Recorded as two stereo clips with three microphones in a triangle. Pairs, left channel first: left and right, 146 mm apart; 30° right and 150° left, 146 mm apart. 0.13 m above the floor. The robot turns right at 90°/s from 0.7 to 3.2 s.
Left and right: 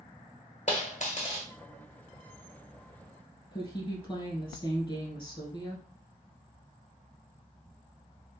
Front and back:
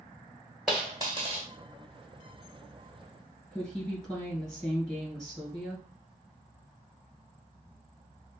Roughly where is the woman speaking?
Ahead left.